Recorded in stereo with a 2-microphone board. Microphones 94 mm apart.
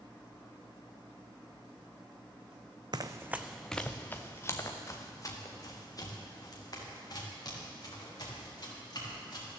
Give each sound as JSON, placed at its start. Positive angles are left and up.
{"t": 2.9, "sound": "running footsteps", "side_deg": -50, "distance_m": 0.7}